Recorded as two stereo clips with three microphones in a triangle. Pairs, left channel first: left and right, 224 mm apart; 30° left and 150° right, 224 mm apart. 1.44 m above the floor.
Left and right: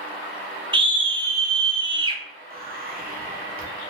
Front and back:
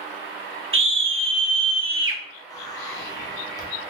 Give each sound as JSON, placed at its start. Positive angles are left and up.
{"t": 0.7, "sound": "a scream", "azimuth_deg": -160, "distance_m": 0.6}
{"t": 2.5, "sound": "whispering", "azimuth_deg": -45, "distance_m": 0.9}